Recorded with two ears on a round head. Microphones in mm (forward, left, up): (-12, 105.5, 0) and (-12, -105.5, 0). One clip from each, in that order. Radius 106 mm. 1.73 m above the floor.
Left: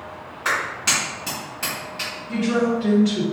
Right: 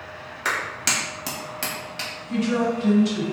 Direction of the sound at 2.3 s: 30° right (ahead or behind).